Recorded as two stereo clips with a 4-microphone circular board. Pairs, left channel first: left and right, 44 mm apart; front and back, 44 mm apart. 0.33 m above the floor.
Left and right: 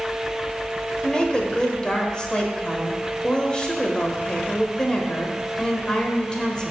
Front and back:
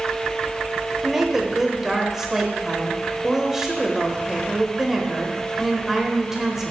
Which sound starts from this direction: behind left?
A woman speaking, at 1.0 s.